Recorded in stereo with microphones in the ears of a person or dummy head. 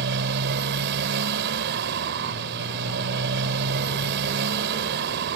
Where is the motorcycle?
55° right (ahead or behind).